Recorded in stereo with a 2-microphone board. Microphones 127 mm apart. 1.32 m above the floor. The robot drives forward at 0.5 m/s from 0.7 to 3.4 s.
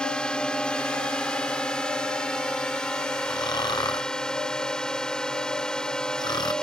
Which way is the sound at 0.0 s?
5° left (ahead or behind).